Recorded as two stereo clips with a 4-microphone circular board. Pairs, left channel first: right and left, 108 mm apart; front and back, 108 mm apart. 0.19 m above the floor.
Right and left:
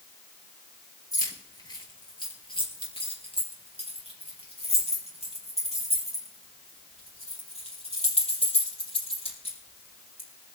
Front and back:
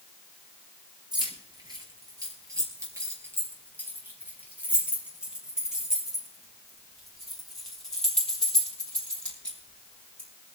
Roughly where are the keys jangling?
Behind right.